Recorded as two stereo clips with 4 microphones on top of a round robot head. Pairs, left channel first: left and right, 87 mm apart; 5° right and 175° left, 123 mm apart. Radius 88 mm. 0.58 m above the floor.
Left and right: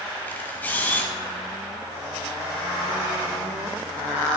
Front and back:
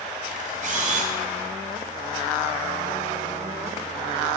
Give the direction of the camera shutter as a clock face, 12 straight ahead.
7 o'clock.